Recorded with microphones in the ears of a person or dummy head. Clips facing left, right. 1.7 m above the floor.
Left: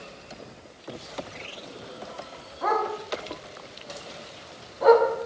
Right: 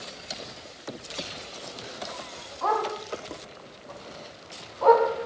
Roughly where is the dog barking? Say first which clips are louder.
Left 1 dB; left.